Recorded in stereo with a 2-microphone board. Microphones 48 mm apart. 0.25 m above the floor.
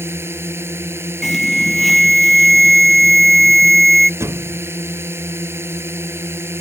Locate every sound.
0.0 s a drone: 60° right (ahead or behind)
1.2 s an alarm: centre (ahead or behind)
4.2 s a thud: 75° right (ahead or behind)